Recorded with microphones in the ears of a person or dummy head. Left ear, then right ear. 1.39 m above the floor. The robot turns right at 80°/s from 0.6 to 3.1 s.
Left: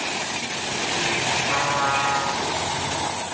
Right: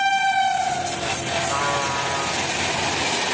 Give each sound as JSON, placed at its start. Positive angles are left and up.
{"t": 1.5, "sound": "a trumpet", "azimuth_deg": 115, "distance_m": 1.8}